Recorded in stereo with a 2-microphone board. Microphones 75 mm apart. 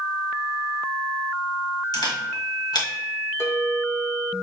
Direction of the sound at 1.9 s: 70° left (ahead or behind).